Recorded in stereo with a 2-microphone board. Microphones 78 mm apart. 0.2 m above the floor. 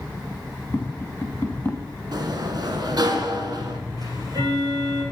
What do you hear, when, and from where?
0.7 s tapping: 30° left (ahead or behind), 1.1 m
2.1 s a sliding door: 60° right (ahead or behind), 0.8 m
4.0 s ticking: 50° right (ahead or behind), 3 m